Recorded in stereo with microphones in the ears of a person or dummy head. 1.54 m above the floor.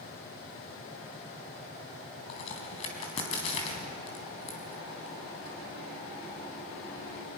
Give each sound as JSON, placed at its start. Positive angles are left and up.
{"t": 2.3, "sound": "a crack", "side_deg": 40, "distance_m": 3.5}